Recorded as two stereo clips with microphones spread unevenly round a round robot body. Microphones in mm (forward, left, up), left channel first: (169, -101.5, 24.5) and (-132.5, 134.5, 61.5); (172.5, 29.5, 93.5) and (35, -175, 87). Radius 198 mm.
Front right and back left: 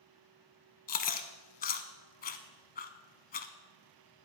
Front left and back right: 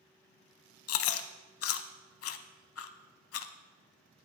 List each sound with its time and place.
0.9 s chewing: 30° left, 0.5 m